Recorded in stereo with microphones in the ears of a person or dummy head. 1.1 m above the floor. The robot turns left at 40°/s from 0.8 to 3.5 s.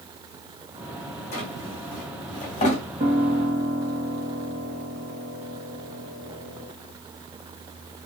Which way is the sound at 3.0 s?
25° right (ahead or behind).